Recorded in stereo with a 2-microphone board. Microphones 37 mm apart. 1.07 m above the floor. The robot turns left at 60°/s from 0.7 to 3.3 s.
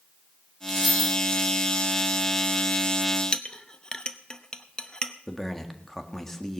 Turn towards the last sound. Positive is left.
turn(degrees=10)  # may be behind; listen again after turning